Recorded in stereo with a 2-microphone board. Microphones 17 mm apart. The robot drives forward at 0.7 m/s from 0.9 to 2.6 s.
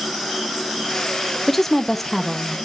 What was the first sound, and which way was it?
A woman speaking, 15° left (ahead or behind).